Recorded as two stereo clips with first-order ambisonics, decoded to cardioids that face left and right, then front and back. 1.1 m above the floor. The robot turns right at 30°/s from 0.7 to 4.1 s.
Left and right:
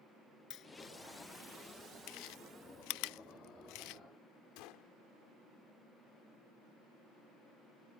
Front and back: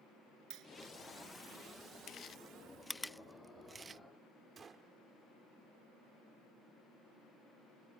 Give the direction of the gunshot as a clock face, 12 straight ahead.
8 o'clock.